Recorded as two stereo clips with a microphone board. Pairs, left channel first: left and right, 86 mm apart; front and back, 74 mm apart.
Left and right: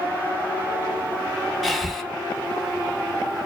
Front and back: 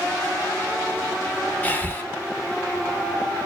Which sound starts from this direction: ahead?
Breathing, at 1.6 s.